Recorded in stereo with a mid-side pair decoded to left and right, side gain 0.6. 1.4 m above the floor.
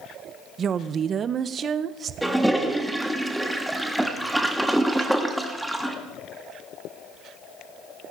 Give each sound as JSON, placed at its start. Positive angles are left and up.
{"t": 0.6, "sound": "a woman speaking", "azimuth_deg": -40, "distance_m": 0.8}
{"t": 2.2, "sound": "a toilet flushing", "azimuth_deg": -10, "distance_m": 1.6}